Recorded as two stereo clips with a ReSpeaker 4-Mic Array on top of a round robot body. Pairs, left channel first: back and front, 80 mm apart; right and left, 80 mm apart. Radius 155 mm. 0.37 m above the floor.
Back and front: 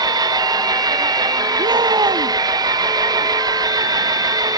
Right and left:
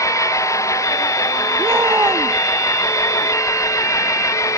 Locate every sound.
0.0 s an engine running: 40° right
1.6 s a shout: 30° left